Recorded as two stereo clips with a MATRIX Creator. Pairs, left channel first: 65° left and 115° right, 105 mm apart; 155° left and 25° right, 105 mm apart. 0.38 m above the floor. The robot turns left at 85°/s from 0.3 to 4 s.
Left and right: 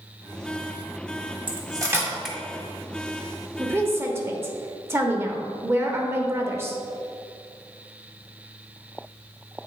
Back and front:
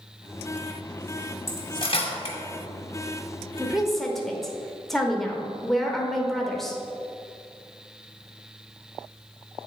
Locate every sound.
1.5 s cutlery clinking: 140° right, 1.3 m; by 2.4 s 145° left, 1.3 m
3.6 s a woman speaking: 85° right, 0.9 m; by 6.8 s 120° right, 0.9 m